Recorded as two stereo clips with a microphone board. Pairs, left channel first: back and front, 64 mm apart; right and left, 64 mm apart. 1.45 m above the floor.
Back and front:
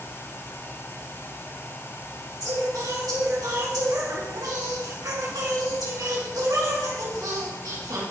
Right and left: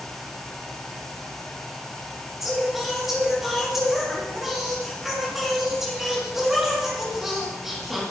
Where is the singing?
5° left, 3 m.